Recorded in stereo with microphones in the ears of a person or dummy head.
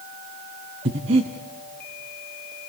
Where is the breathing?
30° right (ahead or behind), 0.9 m.